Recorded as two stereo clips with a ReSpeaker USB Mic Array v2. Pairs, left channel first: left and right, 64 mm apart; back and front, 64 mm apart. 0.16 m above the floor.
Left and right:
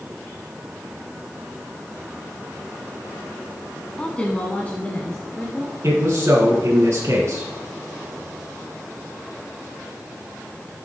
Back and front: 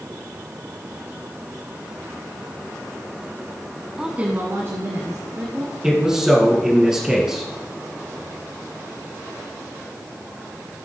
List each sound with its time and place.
4.0 s a woman speaking: 60° left, 1.1 m; by 5.7 s 25° left, 3 m
5.8 s a man speaking: 80° right, 2 m